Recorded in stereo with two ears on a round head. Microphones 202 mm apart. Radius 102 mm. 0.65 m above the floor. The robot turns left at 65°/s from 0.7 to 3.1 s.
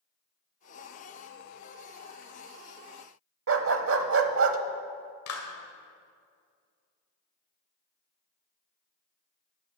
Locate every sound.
3.5 s a dog barking: 65° right (ahead or behind), 0.8 m
5.3 s a clap: 70° left (ahead or behind), 2 m